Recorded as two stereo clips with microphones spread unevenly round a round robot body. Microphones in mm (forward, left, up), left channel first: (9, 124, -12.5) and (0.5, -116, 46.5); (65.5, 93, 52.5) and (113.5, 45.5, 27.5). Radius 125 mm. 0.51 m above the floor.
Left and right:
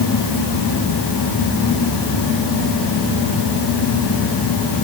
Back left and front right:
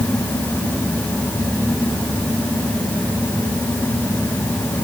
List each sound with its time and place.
Only background noise.